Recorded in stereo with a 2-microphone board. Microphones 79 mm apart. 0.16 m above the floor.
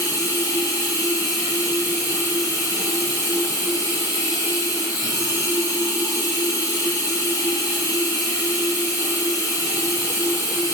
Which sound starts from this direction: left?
Running water, at 0.0 s.